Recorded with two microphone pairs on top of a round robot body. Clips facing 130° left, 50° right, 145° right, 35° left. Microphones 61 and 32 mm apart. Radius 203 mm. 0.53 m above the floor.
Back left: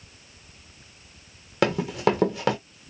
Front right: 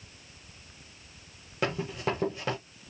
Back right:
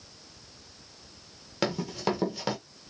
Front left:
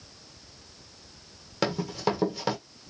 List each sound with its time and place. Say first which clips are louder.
1.6 s running footsteps: back left 8 dB, front left 1 dB; 135° left, 0.8 m